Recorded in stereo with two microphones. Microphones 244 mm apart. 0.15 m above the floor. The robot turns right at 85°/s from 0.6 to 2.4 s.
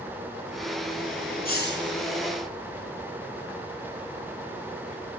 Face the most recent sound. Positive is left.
turn(degrees=140)